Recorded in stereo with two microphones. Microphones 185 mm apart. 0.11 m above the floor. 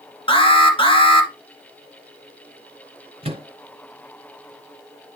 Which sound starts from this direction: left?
An alarm, at 0.3 s.